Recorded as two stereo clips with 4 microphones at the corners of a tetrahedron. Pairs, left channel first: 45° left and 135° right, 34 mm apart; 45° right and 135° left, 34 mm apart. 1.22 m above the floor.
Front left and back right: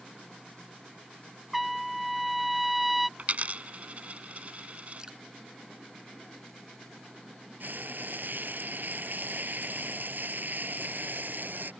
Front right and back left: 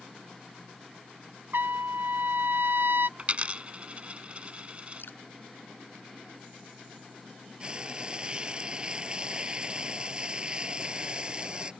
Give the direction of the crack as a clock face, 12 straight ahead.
I don't hear a crack.